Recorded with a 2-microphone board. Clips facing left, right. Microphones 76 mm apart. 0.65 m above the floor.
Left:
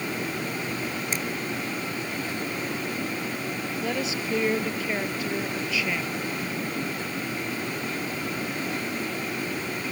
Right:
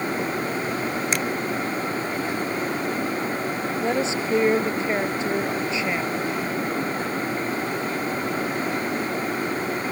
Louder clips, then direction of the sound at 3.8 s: Right 6 dB; 25° right (ahead or behind).